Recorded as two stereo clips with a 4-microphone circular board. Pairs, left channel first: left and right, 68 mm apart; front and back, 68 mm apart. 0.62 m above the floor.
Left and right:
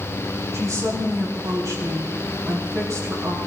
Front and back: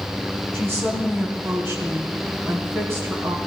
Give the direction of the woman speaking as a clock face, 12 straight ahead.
4 o'clock.